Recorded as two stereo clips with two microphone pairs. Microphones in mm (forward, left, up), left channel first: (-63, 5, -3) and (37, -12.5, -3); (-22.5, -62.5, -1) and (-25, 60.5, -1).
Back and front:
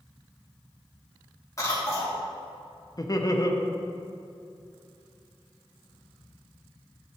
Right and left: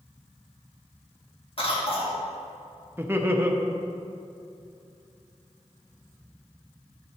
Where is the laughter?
155° left, 0.8 m.